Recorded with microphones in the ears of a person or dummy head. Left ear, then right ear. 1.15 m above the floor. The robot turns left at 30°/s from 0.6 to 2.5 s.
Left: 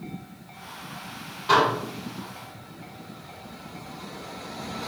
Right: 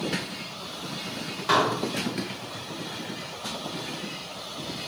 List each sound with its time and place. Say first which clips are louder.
1.5 s dishes clattering: left 3 dB; 40° right (ahead or behind), 2 m; by 1.7 s 35° right (ahead or behind), 2 m